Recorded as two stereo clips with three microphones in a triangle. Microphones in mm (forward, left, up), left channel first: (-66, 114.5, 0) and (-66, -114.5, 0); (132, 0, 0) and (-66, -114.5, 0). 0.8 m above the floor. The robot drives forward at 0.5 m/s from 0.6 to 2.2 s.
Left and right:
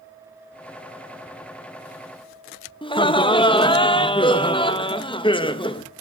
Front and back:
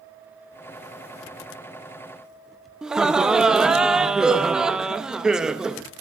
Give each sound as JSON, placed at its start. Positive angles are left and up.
{"t": 2.8, "sound": "laughter", "azimuth_deg": 125, "distance_m": 0.5}